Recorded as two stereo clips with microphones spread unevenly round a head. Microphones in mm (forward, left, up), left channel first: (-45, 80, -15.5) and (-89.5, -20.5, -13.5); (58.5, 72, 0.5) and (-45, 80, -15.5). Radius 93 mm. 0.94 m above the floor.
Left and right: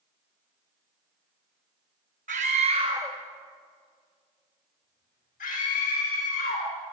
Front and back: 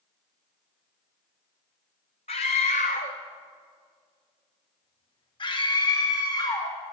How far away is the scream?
About 1.4 m.